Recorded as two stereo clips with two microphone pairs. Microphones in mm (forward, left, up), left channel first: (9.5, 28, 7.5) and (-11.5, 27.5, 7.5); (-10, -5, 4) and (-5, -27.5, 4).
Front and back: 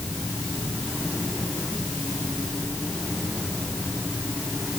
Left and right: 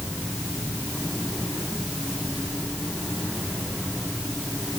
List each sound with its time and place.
Only background noise.